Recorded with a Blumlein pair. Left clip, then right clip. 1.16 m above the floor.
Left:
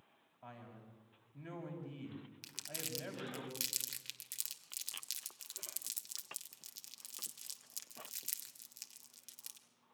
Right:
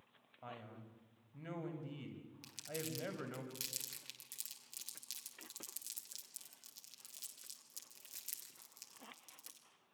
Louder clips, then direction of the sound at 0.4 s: Right 2 dB; 60° right.